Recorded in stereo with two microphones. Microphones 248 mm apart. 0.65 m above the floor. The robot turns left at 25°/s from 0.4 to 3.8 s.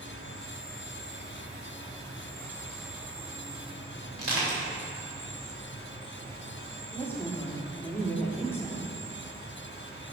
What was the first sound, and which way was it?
An insect, 60° left.